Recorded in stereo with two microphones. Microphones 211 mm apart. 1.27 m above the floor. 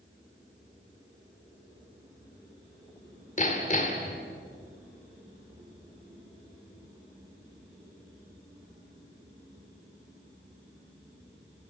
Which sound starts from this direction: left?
Hammering, at 3.4 s.